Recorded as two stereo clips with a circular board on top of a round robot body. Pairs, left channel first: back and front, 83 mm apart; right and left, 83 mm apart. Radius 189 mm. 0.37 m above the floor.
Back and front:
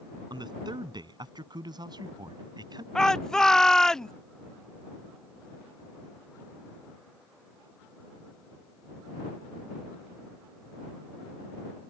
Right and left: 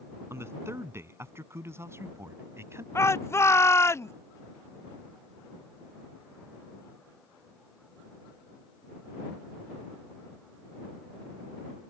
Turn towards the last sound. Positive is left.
turn(degrees=-100)